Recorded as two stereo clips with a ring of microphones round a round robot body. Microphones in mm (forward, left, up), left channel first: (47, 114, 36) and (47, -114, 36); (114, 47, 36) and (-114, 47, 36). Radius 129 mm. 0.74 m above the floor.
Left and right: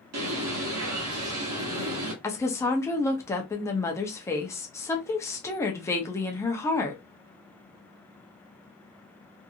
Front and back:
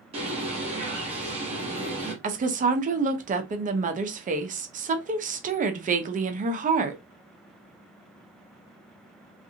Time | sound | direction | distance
0.1 | a bird | 115° right | 0.9 m
2.2 | a woman speaking | 160° left | 0.6 m